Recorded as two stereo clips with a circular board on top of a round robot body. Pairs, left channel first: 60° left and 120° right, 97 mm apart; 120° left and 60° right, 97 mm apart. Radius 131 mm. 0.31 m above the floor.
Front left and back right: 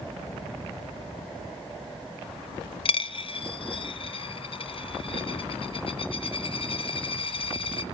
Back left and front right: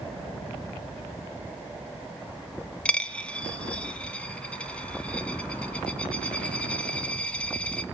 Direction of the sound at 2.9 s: 40° left.